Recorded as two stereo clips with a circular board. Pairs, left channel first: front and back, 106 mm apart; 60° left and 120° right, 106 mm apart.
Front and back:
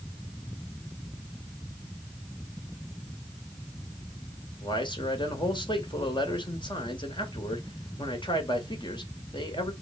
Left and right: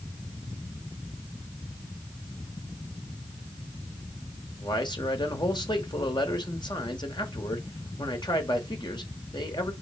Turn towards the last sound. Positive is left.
turn(degrees=30)